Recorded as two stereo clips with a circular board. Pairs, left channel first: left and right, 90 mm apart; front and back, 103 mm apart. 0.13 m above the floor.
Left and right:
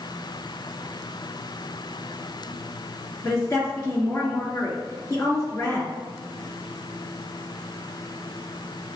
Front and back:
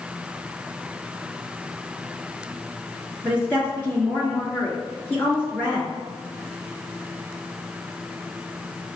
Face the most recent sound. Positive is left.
turn(degrees=60)